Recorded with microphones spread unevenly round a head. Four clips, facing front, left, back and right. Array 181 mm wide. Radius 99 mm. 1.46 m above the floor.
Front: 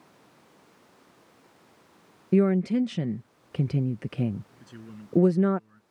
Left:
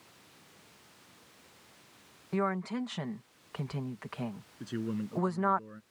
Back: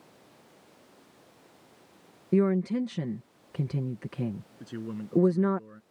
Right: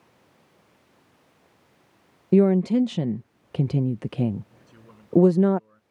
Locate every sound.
2.3 s a woman speaking: 80° right
4.6 s a man speaking: 140° left